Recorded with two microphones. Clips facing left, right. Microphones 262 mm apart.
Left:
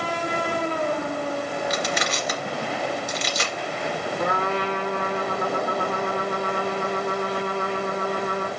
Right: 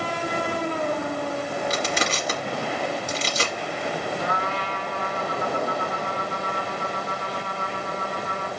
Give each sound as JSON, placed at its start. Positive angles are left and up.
{"t": 1.7, "sound": "crushing", "side_deg": -30, "distance_m": 2.0}
{"t": 4.2, "sound": "a trumpet", "side_deg": 60, "distance_m": 1.8}